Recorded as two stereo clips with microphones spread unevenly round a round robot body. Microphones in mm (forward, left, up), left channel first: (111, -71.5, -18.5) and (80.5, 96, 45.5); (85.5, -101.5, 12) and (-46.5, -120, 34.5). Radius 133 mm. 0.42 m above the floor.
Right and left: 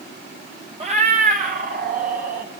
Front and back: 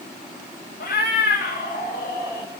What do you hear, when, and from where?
0.8 s a cat meowing: 50° left, 1.4 m; by 2.5 s 80° left, 3 m